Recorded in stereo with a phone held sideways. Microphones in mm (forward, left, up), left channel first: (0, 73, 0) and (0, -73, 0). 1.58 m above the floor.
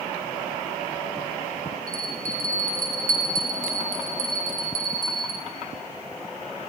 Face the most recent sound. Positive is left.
turn(degrees=-80)